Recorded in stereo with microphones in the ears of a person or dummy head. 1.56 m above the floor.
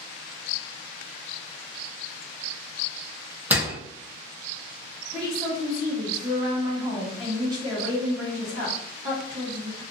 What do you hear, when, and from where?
3.5 s a door slam: 10° right (ahead or behind), 0.6 m
5.1 s a woman speaking: 20° right (ahead or behind), 1.3 m